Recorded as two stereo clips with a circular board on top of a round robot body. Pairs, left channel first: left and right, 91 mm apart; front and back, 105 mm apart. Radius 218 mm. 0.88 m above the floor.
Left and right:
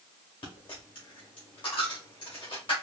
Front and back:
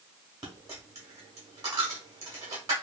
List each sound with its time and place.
0.4 s a dropped coin: 125° left, 0.7 m